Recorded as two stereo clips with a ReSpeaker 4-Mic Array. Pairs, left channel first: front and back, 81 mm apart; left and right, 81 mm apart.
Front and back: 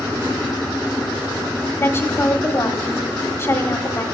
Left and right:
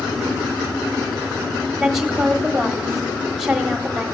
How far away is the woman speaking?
About 1.4 m.